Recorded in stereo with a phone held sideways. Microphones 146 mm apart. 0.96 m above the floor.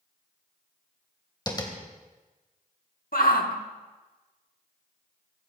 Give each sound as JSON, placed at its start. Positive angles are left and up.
{"t": 1.5, "sound": "tapping", "side_deg": 30, "distance_m": 2.5}
{"t": 3.1, "sound": "a shout", "side_deg": 85, "distance_m": 1.7}